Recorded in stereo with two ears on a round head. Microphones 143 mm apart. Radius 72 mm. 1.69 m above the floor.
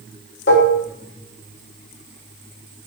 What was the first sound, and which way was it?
Dishes clattering, 70° left (ahead or behind).